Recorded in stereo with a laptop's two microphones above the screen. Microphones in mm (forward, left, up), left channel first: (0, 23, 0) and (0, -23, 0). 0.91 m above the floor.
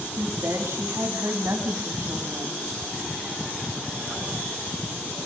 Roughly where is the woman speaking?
Right.